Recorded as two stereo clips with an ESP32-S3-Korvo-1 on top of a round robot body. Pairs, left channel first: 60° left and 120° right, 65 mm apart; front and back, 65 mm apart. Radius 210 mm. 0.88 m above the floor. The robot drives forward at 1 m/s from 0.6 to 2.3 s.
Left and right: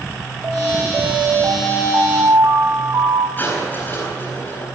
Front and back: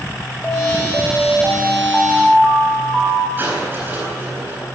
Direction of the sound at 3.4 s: 115° left.